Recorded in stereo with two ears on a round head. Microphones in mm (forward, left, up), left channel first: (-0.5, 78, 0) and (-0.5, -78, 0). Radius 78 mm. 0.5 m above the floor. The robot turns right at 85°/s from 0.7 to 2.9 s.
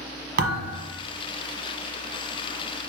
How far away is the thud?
About 1.2 m.